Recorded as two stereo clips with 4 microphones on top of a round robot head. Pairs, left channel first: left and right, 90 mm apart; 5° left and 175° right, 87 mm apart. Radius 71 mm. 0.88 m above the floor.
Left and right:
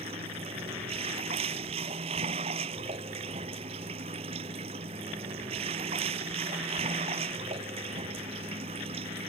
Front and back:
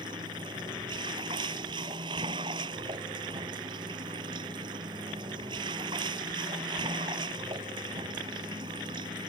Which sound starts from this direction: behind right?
Running water, at 0.0 s.